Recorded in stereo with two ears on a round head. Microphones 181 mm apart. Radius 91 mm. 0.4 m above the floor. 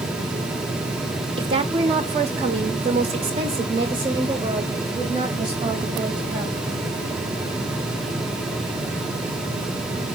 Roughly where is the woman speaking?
Right.